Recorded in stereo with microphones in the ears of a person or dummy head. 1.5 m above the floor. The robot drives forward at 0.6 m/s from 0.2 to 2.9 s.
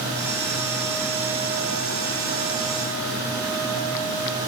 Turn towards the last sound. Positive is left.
No sound to turn to.